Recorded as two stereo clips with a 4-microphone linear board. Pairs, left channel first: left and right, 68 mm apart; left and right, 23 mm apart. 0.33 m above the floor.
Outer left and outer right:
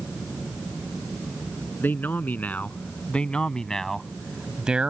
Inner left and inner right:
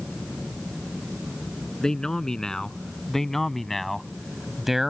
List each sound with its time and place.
1.8 s a man speaking: 30° left (ahead or behind); by 4.9 s 20° right (ahead or behind)